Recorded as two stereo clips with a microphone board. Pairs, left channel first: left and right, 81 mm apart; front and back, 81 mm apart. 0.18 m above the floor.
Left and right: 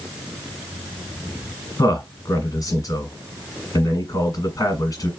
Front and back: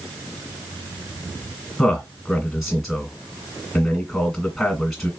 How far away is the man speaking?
About 1.6 m.